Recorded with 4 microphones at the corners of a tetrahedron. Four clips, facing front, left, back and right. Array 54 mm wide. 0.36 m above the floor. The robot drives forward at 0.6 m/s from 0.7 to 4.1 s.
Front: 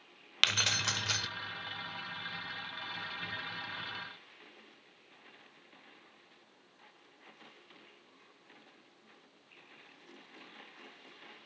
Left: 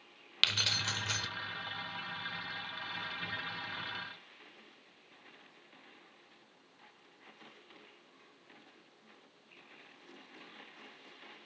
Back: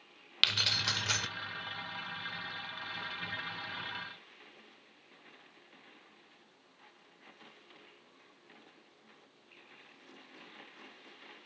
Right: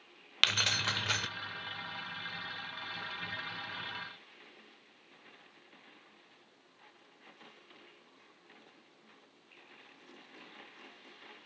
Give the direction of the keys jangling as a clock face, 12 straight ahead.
2 o'clock.